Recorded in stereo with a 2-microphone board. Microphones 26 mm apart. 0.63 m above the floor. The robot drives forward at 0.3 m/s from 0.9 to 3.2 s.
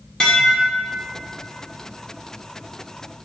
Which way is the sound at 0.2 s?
35° left (ahead or behind).